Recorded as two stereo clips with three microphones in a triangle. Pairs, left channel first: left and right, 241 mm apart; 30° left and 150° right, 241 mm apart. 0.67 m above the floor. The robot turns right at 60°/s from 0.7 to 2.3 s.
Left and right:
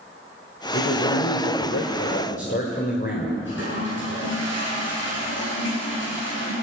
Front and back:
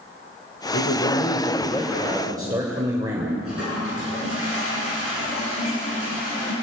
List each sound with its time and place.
0.7 s a man speaking: 45° left, 3 m; by 3.4 s 140° left, 3 m
3.5 s a toilet flushing: 55° left, 9.5 m